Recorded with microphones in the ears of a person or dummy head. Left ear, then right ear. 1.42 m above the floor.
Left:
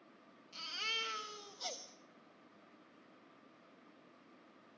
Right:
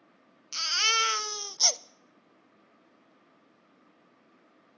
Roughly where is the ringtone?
I don't hear a ringtone.